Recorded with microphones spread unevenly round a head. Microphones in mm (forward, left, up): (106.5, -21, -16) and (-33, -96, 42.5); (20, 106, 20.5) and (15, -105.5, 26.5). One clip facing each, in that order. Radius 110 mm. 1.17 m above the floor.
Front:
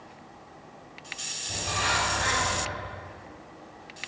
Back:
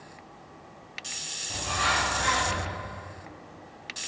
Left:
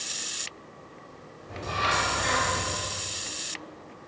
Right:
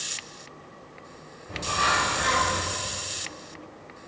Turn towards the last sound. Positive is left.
turn(degrees=-20)